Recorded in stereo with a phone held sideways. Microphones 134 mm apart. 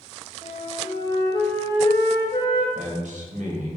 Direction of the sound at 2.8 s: 80° right.